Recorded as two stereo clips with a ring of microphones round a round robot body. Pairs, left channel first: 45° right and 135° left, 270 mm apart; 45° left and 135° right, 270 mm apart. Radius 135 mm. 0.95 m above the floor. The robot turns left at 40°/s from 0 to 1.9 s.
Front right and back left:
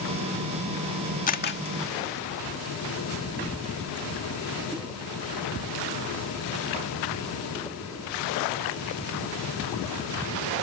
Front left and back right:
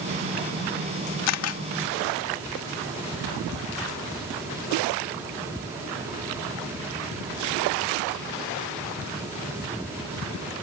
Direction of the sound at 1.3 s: 15° left.